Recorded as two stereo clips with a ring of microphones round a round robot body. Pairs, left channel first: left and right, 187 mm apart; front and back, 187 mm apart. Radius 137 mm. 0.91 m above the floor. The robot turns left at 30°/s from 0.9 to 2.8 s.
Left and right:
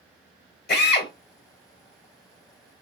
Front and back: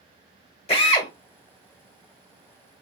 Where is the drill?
60° left, 1.5 m; by 1.1 s 55° left, 1.5 m.